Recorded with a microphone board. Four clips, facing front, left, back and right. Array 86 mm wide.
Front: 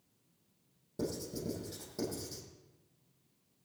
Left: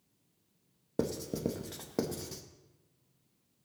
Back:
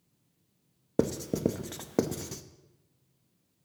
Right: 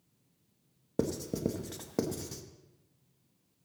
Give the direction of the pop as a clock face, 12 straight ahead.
No pop in this recording.